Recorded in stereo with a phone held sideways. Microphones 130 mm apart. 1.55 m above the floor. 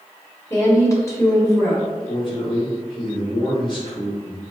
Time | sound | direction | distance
0.5 | a woman speaking | 25° left (ahead or behind) | 1.6 m
2.1 | a man speaking | 40° left (ahead or behind) | 1.9 m